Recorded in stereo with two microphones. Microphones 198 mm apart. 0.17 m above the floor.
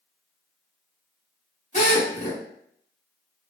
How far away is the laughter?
I don't hear laughter.